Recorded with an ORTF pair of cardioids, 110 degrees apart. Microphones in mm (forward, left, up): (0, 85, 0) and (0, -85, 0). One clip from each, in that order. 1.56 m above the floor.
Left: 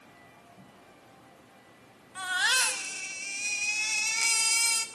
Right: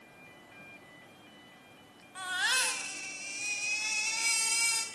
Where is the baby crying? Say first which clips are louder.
Left 4 dB; 25° left, 4.5 m.